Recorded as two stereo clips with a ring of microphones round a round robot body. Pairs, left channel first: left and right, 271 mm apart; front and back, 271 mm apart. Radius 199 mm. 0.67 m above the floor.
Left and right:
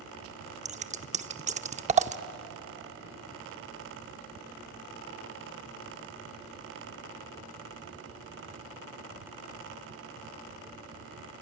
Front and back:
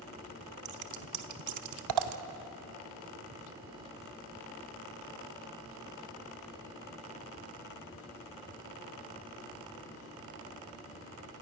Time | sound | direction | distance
0.7 | scissors | 155° right | 0.7 m